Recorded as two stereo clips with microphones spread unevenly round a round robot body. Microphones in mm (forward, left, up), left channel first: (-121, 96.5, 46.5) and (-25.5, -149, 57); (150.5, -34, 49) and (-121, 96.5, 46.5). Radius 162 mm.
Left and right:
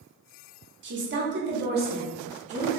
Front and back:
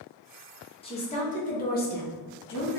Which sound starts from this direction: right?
A woman speaking, at 0.8 s.